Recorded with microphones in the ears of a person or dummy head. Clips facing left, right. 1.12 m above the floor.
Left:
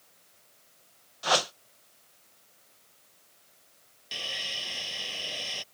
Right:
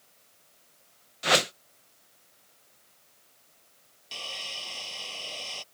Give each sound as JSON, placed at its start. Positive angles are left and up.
{"t": 1.2, "sound": "a whoosh", "side_deg": -30}
{"t": 4.1, "sound": "sawing", "side_deg": 20}